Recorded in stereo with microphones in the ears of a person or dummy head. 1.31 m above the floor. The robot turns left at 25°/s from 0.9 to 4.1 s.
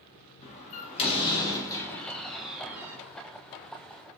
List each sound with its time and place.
0.4 s a door slam: 35° left, 0.9 m; by 3.0 s 15° right, 0.9 m